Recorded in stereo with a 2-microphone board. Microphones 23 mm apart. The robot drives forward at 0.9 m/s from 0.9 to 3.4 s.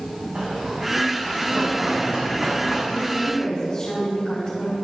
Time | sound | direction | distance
0.3 | running footsteps | 45° right (ahead or behind) | 3 m
2.9 | a woman speaking | 35° left (ahead or behind) | 3 m